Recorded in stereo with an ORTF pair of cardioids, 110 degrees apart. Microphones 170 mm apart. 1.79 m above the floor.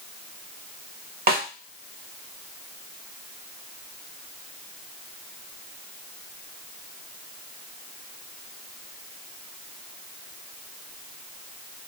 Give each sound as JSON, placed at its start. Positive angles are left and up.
{"t": 1.3, "sound": "a snare drum", "azimuth_deg": -65, "distance_m": 0.9}